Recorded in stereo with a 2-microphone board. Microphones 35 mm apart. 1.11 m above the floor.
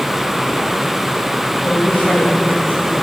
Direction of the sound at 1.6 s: 55° left (ahead or behind).